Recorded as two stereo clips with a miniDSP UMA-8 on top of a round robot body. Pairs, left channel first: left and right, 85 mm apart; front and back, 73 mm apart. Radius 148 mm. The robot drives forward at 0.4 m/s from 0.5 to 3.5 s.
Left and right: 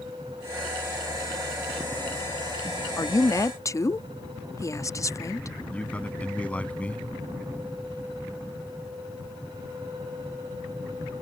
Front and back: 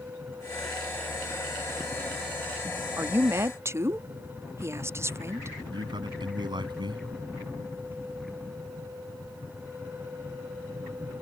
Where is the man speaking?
165° left.